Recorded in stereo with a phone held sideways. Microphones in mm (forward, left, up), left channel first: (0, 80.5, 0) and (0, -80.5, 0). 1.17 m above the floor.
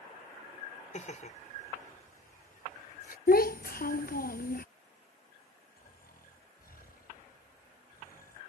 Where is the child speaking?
65° left (ahead or behind).